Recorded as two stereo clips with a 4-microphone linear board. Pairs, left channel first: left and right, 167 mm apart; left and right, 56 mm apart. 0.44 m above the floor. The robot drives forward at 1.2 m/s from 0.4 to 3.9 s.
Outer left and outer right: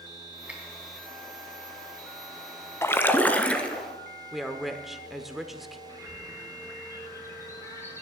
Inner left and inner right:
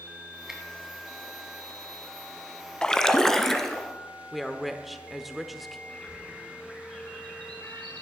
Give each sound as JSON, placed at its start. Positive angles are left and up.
{"t": 0.5, "sound": "a finger snap", "side_deg": -10, "distance_m": 3.0}
{"t": 2.8, "sound": "a splash", "side_deg": 15, "distance_m": 0.6}
{"t": 4.3, "sound": "a woman speaking", "side_deg": 0, "distance_m": 1.0}
{"t": 5.9, "sound": "a bird", "side_deg": 15, "distance_m": 5.0}